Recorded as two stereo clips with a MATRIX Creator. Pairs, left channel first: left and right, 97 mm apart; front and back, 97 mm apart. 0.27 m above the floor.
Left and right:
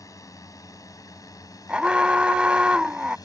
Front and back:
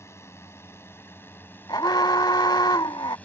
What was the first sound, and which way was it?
A drone, 50° left.